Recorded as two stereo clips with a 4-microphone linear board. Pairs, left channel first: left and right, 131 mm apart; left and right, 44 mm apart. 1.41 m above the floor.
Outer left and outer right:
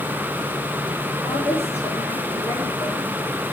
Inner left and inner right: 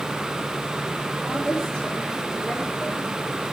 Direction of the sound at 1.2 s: 20° left (ahead or behind).